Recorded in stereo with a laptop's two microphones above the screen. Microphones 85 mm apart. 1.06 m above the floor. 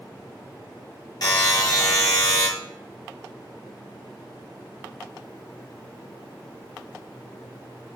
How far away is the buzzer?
About 4 m.